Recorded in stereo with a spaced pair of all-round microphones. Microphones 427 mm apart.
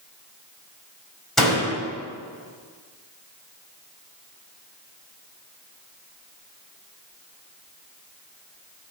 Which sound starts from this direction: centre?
A door slam, at 1.4 s.